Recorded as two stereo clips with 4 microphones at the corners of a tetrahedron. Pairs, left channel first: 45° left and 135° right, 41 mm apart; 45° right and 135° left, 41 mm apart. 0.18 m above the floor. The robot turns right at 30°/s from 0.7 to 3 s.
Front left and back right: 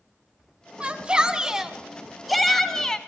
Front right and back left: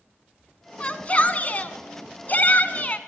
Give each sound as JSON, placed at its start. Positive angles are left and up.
{"t": 0.8, "sound": "a shout", "azimuth_deg": -90, "distance_m": 1.4}